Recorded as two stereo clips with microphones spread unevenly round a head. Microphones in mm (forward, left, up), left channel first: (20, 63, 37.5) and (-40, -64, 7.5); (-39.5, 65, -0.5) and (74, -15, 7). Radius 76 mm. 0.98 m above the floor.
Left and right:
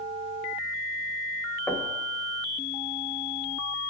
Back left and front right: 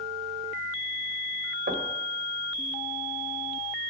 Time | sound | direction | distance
1.7 | knocking | 15° right | 1.3 m